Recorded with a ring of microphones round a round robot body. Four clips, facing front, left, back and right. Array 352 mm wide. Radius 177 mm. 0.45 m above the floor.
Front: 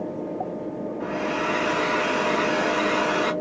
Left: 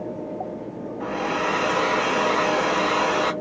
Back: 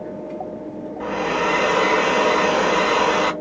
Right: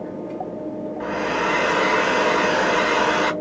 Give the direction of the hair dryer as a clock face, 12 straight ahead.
5 o'clock.